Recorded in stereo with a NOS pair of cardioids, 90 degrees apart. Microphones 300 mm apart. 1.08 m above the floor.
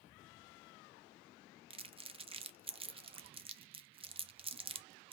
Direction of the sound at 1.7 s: 20° right.